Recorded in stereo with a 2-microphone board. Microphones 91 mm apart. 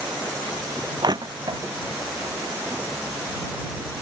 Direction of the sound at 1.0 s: 50° right (ahead or behind).